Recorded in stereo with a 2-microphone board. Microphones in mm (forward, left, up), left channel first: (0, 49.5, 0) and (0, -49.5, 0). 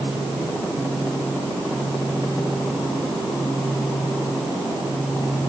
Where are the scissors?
No scissors in this recording.